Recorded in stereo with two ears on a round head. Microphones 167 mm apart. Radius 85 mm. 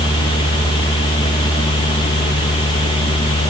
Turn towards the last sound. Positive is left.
No sound to turn to.